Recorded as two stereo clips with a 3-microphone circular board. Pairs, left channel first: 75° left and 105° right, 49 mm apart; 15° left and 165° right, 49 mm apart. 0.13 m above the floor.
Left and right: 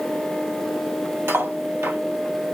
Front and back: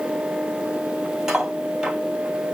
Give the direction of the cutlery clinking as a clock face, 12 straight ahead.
3 o'clock.